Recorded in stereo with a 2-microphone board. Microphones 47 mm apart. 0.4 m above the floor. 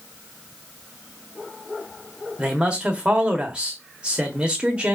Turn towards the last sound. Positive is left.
turn(degrees=-20)  # may be behind; listen again after turning